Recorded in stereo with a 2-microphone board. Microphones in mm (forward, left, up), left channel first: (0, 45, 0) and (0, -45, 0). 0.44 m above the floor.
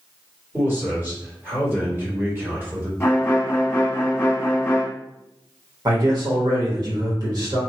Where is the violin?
25° left (ahead or behind), 0.8 m.